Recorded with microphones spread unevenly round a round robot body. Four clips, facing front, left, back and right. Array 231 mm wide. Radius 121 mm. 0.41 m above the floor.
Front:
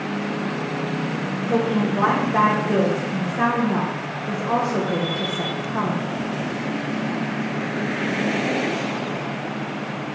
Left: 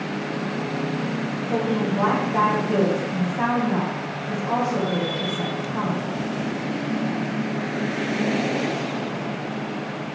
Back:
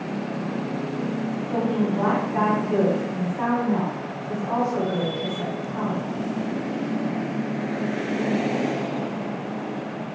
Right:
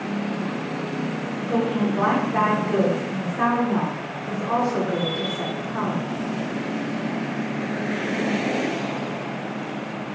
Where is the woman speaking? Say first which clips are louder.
Right 1 dB, front 4 dB; 5° right, 2 m.